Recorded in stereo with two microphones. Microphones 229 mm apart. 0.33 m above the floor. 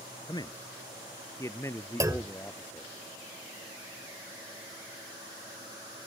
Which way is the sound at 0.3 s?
20° left (ahead or behind).